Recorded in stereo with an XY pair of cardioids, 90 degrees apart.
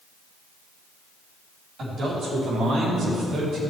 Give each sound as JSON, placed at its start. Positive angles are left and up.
{"t": 1.8, "sound": "a man speaking", "azimuth_deg": -65, "distance_m": 4.0}